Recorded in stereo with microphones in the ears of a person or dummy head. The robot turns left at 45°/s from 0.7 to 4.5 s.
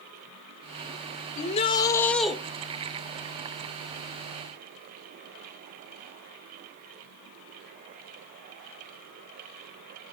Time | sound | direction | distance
1.4 | a shout | 45° left | 1.8 m